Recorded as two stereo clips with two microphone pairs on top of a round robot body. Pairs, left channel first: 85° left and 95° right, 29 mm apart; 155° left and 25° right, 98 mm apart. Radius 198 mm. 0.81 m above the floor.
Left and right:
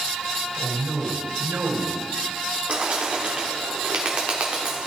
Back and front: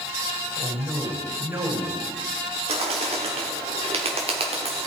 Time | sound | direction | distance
0.6 | a man speaking | 80° right | 4 m
2.7 | a bird | 45° right | 0.8 m